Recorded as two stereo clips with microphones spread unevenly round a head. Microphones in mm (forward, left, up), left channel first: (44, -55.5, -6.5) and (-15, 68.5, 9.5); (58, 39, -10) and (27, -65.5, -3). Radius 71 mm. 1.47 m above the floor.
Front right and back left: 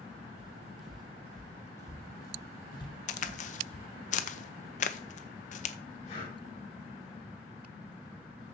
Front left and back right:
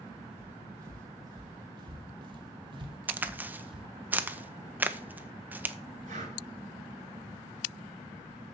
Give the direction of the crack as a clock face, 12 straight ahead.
1 o'clock.